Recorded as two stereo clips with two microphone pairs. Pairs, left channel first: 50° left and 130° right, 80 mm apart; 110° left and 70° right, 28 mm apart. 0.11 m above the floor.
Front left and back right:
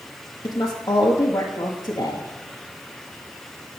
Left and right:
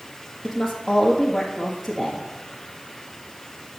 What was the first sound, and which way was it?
A woman speaking, 25° left.